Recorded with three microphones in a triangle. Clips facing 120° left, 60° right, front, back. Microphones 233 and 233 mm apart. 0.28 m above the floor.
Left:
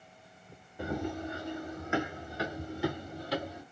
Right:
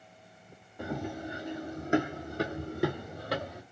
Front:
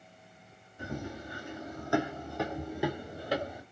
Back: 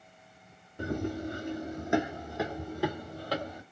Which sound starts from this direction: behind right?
Running footsteps, at 0.8 s.